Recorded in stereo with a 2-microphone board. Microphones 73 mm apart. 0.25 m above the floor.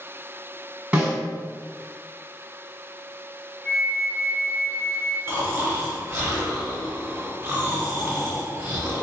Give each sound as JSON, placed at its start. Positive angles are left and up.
{"t": 0.9, "sound": "a snare drum", "side_deg": -20, "distance_m": 1.8}
{"t": 3.6, "sound": "a flute", "side_deg": 5, "distance_m": 1.7}
{"t": 5.3, "sound": "snoring", "side_deg": -35, "distance_m": 1.5}